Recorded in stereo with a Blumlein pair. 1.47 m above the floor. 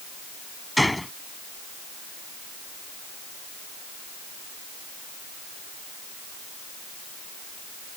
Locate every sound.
0.8 s a gunshot: 5° left